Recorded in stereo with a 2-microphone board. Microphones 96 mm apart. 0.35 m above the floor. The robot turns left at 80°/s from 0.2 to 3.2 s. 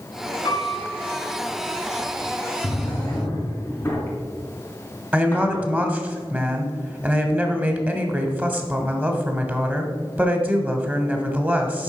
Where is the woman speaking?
20° right (ahead or behind), 1.2 m.